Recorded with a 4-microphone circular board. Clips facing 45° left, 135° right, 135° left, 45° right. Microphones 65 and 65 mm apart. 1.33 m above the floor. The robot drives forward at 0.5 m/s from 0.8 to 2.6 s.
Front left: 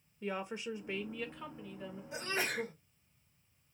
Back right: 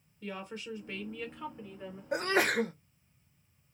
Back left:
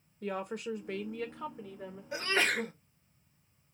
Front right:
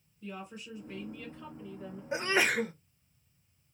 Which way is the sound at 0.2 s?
115° left.